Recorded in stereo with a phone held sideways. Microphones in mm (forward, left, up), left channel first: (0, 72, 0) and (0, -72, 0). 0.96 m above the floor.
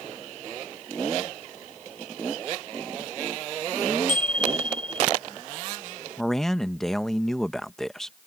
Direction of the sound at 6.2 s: 5° left (ahead or behind).